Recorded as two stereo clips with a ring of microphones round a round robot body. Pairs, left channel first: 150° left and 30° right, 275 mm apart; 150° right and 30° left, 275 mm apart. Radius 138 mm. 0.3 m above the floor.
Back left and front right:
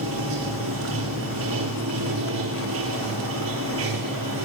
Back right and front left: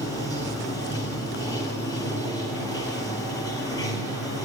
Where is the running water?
70° right, 2.5 m.